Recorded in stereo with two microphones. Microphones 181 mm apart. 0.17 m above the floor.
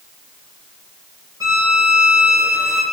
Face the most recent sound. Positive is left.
turn(degrees=-20)  # may be behind; listen again after turning